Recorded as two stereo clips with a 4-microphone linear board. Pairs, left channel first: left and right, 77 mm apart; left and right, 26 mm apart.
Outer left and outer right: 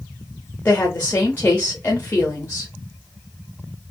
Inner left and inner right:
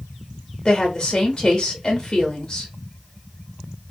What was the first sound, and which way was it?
A woman speaking, 25° left (ahead or behind).